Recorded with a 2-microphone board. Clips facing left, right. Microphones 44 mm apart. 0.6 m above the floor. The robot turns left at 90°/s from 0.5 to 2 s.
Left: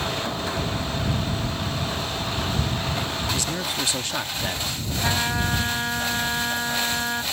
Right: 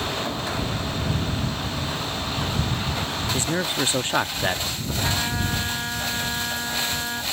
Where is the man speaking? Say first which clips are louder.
Right 3 dB; 30° right (ahead or behind).